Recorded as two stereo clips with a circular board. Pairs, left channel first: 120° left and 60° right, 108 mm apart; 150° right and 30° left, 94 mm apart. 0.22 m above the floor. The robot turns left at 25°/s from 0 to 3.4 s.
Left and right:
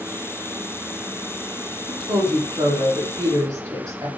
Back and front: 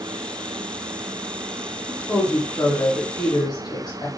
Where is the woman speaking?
80° right, 2 m; by 4.1 s 120° right, 2 m.